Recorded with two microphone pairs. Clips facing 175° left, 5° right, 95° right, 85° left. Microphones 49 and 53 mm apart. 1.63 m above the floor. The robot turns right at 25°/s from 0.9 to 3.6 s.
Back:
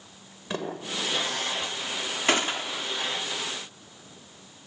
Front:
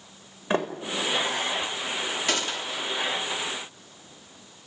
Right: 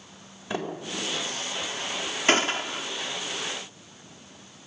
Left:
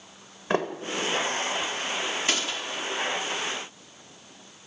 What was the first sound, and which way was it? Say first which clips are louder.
A sliding door: front 5 dB, left 5 dB; 50° left.